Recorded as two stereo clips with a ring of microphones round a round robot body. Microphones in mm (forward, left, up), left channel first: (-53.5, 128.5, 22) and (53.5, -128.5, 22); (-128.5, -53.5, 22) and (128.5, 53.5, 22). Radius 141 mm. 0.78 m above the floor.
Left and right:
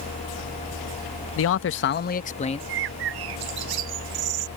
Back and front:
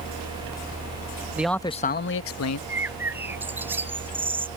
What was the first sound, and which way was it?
A man speaking, 105° left.